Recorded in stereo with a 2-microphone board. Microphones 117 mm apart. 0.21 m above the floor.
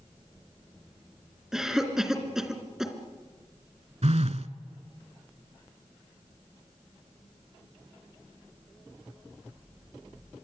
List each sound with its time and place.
1.5 s a cough: 5° right (ahead or behind), 3.5 m
4.0 s a phone buzzing: 70° right (ahead or behind), 0.8 m